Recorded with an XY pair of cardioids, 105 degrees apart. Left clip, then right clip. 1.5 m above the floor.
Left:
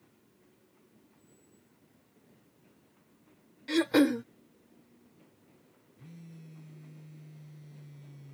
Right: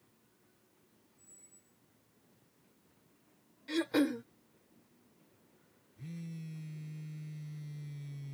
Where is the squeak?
70° right.